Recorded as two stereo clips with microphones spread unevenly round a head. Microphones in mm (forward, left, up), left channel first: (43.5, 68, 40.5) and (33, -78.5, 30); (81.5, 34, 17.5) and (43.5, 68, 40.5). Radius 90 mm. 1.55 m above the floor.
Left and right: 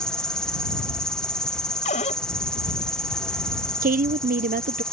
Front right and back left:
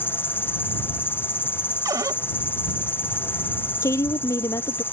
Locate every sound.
0.0 s an insect: straight ahead
1.9 s a cupboard door: 140° left
3.8 s a woman speaking: 65° right